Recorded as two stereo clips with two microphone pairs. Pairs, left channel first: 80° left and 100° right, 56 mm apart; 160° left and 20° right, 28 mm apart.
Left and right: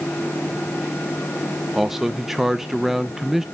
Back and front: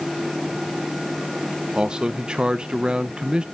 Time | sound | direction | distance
1.8 | a man speaking | 15° right | 0.8 m